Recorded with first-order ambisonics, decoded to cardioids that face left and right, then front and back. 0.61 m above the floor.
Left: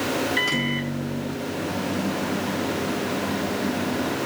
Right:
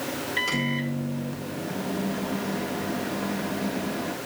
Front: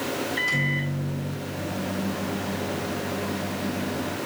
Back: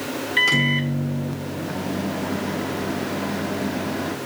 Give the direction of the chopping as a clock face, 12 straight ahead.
I don't hear chopping.